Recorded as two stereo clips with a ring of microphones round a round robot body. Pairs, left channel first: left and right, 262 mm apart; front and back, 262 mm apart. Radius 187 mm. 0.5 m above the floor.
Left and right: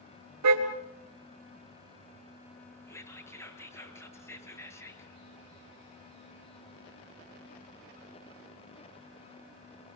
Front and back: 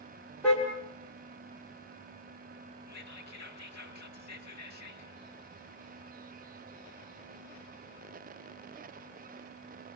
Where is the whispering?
10° left, 8 m.